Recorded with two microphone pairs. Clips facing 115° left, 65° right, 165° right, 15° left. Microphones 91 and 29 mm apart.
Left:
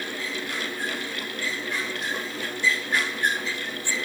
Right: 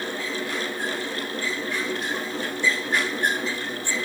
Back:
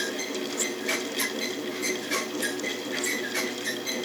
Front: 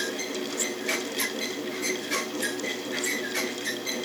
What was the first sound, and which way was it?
Only background noise.